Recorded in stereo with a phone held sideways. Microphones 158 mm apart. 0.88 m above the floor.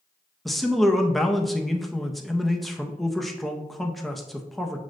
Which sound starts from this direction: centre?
A man speaking, at 0.5 s.